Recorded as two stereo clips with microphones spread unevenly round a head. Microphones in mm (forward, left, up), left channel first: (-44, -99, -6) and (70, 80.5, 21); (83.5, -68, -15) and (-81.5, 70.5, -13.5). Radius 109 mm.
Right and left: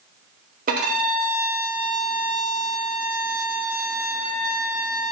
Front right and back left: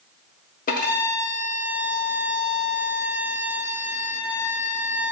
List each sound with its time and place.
0.7 s a violin: 10° left, 0.8 m